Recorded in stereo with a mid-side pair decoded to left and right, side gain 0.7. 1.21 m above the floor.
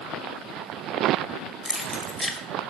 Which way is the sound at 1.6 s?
10° left.